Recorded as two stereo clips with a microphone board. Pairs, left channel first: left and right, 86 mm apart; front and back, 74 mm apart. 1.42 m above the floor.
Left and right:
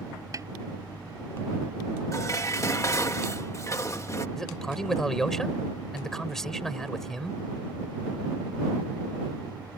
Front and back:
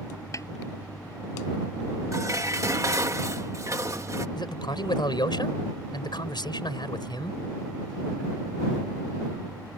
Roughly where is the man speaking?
Ahead.